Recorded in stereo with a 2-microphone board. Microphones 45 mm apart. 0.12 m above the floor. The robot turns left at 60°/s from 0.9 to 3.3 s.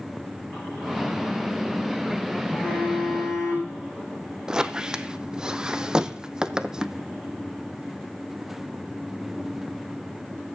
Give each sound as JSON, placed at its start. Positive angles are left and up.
{"t": 2.5, "sound": "a phone buzzing", "azimuth_deg": 150, "distance_m": 6.0}
{"t": 4.5, "sound": "a squeak", "side_deg": -15, "distance_m": 0.5}